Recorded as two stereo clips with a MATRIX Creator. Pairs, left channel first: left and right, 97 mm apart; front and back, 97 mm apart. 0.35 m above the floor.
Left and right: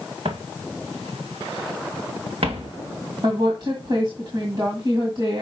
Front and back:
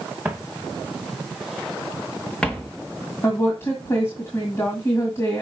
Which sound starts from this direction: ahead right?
A woman speaking, at 3.2 s.